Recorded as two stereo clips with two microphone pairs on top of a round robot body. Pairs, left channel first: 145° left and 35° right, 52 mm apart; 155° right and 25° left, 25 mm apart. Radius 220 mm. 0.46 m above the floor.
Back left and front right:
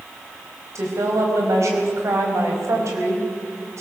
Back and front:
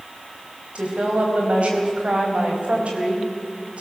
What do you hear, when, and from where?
0.8 s a woman speaking: 10° right, 4.5 m